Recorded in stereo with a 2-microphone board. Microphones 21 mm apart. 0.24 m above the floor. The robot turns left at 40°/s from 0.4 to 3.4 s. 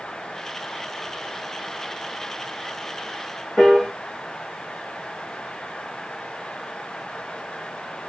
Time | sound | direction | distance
3.6 | a piano | 5° left (ahead or behind) | 3.5 m